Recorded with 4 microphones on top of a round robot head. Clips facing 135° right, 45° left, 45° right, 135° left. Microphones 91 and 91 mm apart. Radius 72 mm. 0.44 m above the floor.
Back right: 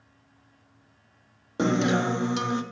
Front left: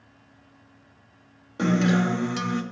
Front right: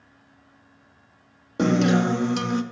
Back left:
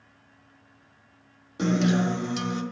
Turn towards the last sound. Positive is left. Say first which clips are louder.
# front left 1 dB, front right 4 dB
turn(degrees=-70)